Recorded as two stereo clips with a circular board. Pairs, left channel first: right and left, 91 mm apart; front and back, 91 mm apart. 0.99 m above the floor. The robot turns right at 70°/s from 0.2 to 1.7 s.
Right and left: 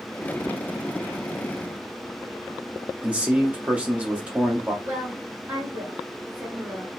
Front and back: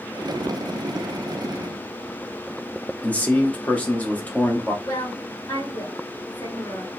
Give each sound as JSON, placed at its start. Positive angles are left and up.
{"t": 3.0, "sound": "a man speaking", "azimuth_deg": 40, "distance_m": 0.7}
{"t": 4.8, "sound": "a woman speaking", "azimuth_deg": 25, "distance_m": 1.5}